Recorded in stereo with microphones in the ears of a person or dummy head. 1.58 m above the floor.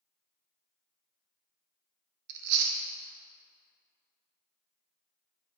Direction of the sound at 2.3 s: 60° right (ahead or behind).